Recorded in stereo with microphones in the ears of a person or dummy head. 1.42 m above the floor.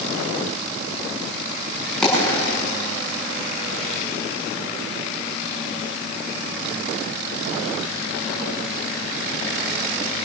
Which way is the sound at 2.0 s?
5° left (ahead or behind).